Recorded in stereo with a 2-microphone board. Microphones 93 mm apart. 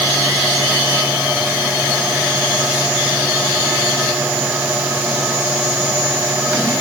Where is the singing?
No singing in this recording.